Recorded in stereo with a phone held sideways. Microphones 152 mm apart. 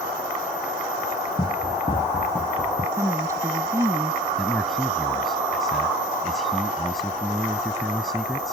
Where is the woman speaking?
20° right (ahead or behind).